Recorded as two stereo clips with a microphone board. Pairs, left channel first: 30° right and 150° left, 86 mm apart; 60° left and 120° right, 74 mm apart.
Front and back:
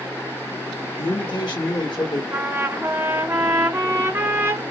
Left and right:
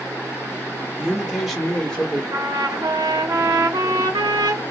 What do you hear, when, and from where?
1.0 s a man speaking: 40° right, 1.9 m; by 2.2 s 15° right, 2 m
2.3 s a trumpet: 150° right, 0.8 m